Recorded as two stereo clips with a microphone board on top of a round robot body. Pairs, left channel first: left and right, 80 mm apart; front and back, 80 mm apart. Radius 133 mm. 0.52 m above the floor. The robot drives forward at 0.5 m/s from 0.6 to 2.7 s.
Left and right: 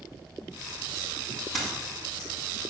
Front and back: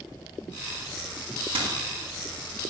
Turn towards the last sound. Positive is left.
turn(degrees=180)